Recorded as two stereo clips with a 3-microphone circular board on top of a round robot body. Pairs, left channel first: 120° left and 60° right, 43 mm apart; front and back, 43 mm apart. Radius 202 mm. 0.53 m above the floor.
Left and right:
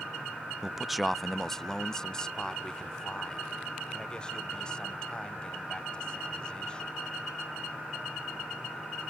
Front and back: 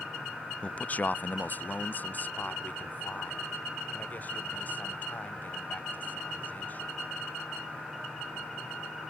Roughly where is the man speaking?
Ahead.